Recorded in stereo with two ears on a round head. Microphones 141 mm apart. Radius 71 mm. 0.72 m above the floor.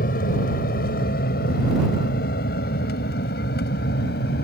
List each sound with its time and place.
0.0 s an aircraft: 60° left (ahead or behind); by 4.5 s 70° left (ahead or behind)